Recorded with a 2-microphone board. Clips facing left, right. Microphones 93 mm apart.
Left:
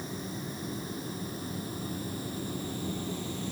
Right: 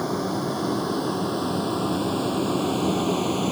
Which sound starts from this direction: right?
A vehicle, at 0.0 s.